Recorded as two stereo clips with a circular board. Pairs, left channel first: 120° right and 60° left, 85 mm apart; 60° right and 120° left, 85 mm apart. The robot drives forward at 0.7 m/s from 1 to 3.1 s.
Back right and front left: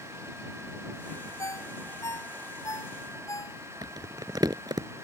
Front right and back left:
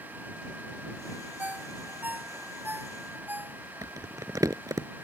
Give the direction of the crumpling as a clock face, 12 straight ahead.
9 o'clock.